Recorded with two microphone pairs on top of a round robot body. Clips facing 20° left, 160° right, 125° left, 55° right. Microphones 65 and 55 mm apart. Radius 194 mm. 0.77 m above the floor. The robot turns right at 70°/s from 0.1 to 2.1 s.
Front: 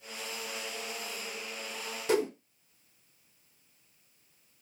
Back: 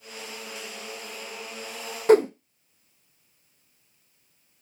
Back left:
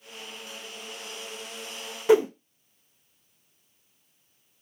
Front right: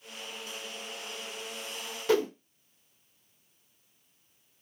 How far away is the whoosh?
About 0.5 m.